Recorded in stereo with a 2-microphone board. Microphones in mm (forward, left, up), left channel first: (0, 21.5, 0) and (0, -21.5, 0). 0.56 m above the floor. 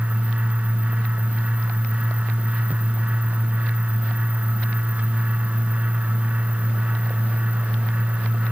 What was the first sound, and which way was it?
Only background noise.